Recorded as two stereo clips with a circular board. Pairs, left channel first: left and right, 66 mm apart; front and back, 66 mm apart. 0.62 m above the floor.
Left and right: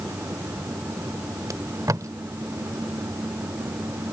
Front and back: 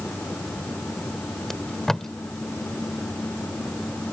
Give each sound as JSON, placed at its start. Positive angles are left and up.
{"t": 1.5, "sound": "tape being pulled", "azimuth_deg": -80}